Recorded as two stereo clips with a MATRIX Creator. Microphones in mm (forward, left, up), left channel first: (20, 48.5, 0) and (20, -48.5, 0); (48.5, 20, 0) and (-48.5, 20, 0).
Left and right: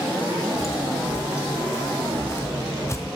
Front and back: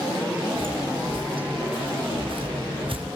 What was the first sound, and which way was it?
Footsteps, 150° left.